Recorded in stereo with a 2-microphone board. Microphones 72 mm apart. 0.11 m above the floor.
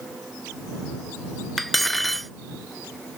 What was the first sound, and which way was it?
Cutlery clinking, 5° left (ahead or behind).